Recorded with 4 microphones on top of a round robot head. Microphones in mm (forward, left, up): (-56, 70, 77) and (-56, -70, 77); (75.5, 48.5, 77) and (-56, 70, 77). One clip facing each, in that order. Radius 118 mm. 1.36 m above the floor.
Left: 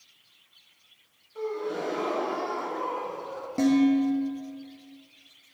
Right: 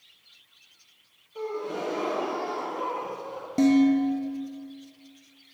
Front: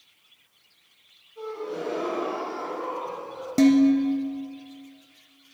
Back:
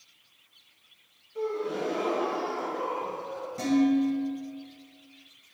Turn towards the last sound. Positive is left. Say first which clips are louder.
# right 2 dB, front 6 dB
turn(degrees=-15)